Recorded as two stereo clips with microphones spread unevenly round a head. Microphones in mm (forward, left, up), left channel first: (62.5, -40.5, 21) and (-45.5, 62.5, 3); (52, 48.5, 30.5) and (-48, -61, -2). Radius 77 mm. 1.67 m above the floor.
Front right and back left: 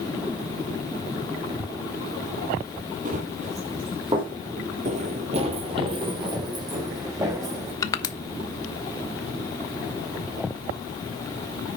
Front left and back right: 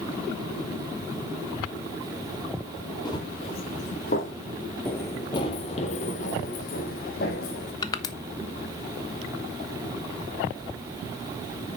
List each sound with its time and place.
3.0 s running footsteps: 100° left, 3 m; by 4.3 s 70° left, 3.5 m
4.8 s running footsteps: 110° left, 2 m; by 7.7 s 65° left, 5.5 m
7.8 s crushing: 10° left, 1.1 m